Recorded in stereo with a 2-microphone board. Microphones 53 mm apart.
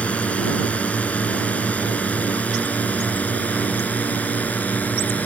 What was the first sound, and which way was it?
A drone, 25° left (ahead or behind).